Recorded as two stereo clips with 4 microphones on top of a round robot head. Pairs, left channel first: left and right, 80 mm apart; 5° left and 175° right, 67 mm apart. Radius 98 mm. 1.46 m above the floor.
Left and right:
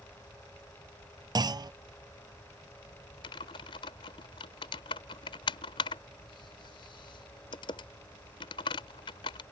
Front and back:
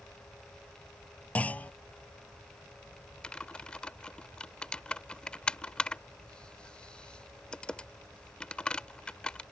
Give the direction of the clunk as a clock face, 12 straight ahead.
2 o'clock.